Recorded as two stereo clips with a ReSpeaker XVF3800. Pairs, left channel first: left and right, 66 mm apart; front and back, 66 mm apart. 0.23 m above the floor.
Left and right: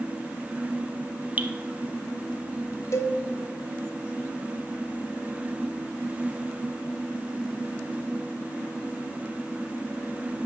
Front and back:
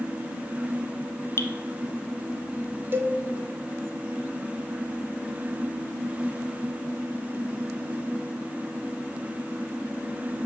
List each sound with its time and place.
1.4 s dripping: 30° right, 0.6 m
2.9 s a cowbell: 130° left, 0.6 m